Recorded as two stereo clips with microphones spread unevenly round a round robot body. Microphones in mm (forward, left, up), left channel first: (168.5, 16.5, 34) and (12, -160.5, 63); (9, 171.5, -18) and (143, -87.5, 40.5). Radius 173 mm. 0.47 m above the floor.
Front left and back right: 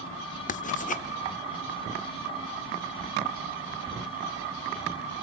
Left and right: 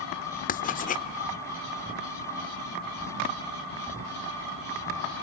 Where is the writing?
80° left, 0.8 m.